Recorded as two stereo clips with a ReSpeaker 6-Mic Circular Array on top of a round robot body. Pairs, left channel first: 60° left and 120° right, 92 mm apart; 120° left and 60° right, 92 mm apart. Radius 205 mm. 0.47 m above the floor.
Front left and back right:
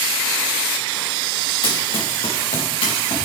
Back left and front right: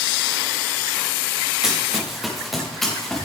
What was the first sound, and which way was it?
Running footsteps, 25° left.